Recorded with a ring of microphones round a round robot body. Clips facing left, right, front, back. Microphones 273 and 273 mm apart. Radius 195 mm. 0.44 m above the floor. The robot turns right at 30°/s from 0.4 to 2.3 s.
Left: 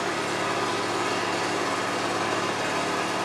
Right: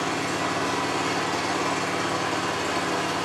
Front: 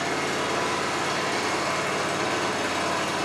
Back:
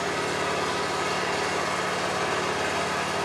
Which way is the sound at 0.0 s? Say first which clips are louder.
Right 1 dB, front 1 dB; 30° right.